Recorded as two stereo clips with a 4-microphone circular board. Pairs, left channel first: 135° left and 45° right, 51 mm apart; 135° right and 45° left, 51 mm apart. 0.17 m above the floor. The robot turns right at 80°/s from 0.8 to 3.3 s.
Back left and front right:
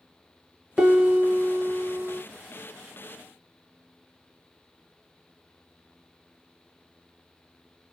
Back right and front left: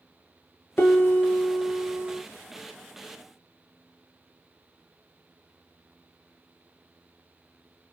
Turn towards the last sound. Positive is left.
turn(degrees=80)